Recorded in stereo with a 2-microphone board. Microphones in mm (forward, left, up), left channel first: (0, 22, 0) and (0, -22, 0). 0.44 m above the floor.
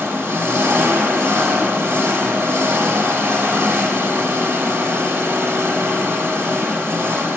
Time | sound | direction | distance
0.0 | an engine running | 70° right (ahead or behind) | 0.8 m